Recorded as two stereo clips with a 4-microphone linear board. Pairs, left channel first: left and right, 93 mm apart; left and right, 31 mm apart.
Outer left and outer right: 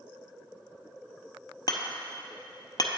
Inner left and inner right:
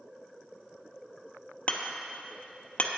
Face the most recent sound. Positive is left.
turn(degrees=45)  # may be behind; listen again after turning